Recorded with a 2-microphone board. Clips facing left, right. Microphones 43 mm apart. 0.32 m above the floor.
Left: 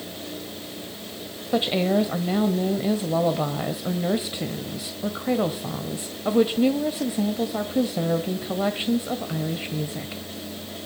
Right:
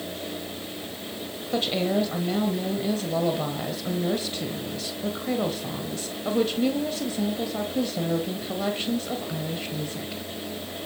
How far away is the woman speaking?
About 1.5 m.